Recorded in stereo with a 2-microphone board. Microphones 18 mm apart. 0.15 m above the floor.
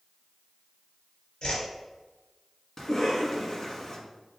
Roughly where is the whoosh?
Left.